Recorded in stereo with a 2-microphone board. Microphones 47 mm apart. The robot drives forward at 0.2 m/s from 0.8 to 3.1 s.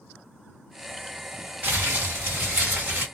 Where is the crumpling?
45° right (ahead or behind), 1.6 m.